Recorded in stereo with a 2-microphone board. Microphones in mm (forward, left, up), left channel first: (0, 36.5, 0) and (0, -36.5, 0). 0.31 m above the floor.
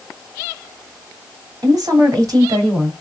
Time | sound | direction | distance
1.6 | a woman speaking | 50° right (ahead or behind) | 2.5 m